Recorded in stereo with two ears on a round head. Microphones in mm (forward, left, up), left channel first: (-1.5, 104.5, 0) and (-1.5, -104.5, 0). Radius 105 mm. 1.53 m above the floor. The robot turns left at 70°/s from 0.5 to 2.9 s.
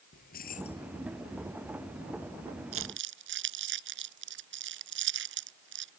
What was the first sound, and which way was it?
Keys jangling, 40° left (ahead or behind).